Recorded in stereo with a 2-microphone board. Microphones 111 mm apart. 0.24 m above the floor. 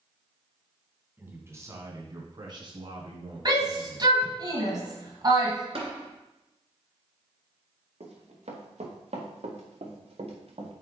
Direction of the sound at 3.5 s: 40° right (ahead or behind).